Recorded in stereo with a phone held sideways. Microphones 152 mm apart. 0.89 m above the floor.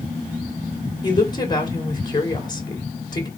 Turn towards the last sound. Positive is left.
turn(degrees=30)  # may be behind; listen again after turning